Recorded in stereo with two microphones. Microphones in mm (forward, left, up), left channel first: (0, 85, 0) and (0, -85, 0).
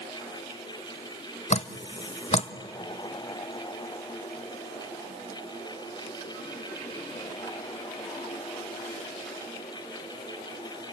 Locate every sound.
1.5 s dripping: 40° left (ahead or behind), 0.6 m